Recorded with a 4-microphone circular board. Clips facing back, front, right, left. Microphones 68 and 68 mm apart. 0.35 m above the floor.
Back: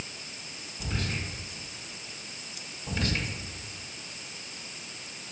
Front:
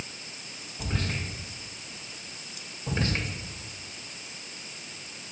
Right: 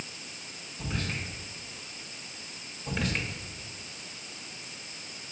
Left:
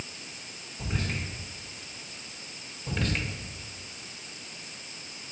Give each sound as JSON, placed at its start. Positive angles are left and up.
{"t": 0.8, "sound": "whispering", "azimuth_deg": 10, "distance_m": 1.8}
{"t": 2.9, "sound": "whispering", "azimuth_deg": -15, "distance_m": 0.9}